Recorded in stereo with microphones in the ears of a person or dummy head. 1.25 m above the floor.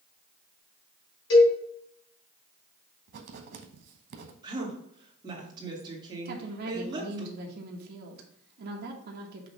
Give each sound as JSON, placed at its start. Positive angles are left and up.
{"t": 1.3, "sound": "a cowbell", "side_deg": 75, "distance_m": 3.5}
{"t": 3.1, "sound": "writing", "side_deg": -55, "distance_m": 0.8}
{"t": 4.4, "sound": "a woman speaking", "side_deg": -25, "distance_m": 2.0}
{"t": 6.2, "sound": "a woman speaking", "side_deg": -60, "distance_m": 1.2}